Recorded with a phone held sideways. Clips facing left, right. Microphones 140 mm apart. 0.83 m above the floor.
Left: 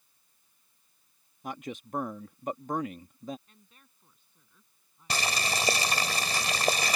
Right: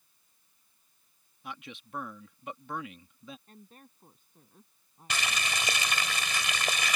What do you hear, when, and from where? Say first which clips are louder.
1.4 s a man speaking: left 7 dB; 45° left (ahead or behind)
3.5 s a woman speaking: right 9 dB; 50° right (ahead or behind)
5.1 s boiling: left 3 dB; 40° left (ahead or behind)